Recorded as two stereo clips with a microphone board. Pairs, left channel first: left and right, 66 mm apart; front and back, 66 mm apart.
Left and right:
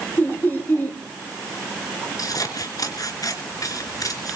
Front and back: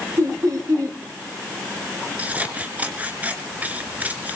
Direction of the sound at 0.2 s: 150° left.